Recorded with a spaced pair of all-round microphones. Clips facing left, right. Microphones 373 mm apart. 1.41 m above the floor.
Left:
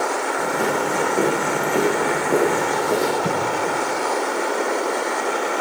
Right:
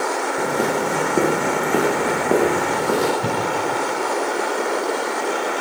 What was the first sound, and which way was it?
Footsteps, 45° right (ahead or behind).